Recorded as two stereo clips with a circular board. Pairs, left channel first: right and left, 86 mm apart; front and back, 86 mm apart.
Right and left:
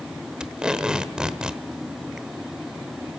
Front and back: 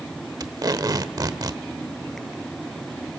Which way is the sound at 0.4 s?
165° left.